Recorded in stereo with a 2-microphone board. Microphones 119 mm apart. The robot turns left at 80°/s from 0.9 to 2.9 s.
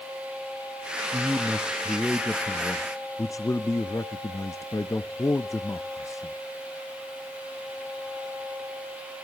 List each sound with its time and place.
1.1 s a man speaking: 20° right (ahead or behind), 0.6 m; by 6.4 s 25° left (ahead or behind), 0.6 m